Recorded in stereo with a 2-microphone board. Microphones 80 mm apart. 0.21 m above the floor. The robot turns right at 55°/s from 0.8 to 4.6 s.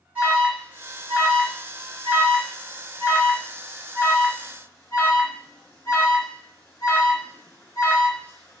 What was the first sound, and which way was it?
An alarm, 15° right (ahead or behind).